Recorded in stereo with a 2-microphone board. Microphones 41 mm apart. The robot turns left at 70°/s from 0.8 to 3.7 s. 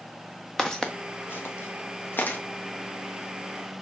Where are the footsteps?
10° left (ahead or behind), 1.0 m; by 2.4 s 40° left (ahead or behind), 1.8 m.